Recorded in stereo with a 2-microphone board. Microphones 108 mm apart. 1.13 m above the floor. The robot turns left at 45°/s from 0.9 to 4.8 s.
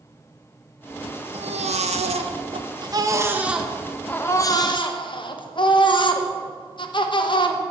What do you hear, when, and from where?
1.3 s a baby crying: 70° right, 0.7 m; by 7.6 s 130° left, 0.7 m